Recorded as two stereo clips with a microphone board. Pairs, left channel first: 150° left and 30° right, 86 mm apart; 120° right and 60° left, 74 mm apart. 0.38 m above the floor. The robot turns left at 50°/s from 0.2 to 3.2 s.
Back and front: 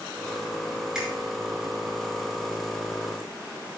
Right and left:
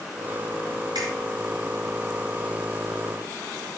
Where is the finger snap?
50° left, 5 m; by 1.1 s 45° left, 5 m.